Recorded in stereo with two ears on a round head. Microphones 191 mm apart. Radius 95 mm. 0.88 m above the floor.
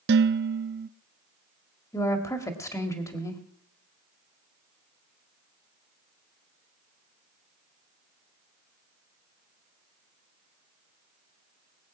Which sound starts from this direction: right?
Dishes clattering, at 0.1 s.